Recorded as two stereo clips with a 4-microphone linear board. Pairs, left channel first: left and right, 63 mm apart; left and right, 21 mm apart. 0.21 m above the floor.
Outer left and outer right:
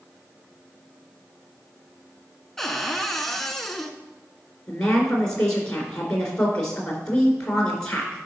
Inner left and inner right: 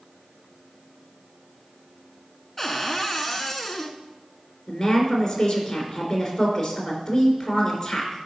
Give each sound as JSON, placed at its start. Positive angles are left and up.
{"t": 2.6, "sound": "a cupboard door", "side_deg": 5, "distance_m": 1.0}
{"t": 4.7, "sound": "a woman speaking", "side_deg": 15, "distance_m": 3.0}